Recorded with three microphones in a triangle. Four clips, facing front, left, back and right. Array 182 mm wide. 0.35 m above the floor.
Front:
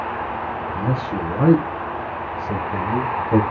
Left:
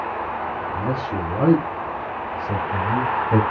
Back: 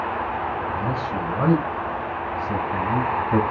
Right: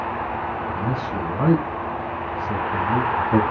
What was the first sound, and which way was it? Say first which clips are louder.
A man speaking: left 1 dB, front 2 dB; 40° left.